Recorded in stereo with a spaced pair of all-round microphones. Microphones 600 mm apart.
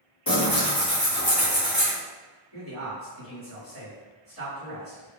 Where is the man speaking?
45° left (ahead or behind), 2.0 m.